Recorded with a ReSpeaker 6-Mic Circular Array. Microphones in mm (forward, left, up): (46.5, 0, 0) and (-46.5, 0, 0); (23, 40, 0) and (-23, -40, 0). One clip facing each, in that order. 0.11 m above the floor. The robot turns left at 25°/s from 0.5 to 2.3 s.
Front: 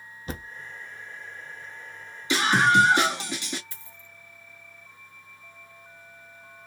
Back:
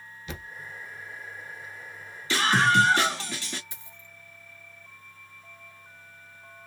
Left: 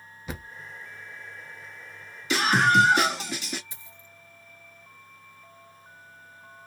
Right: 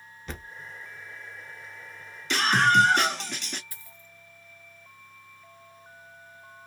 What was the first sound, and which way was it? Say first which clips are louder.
A thud: front 4 dB, left 2 dB; 20° right.